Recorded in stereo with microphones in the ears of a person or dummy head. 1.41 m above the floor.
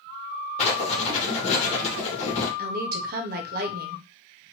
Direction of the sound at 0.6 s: 40° left (ahead or behind).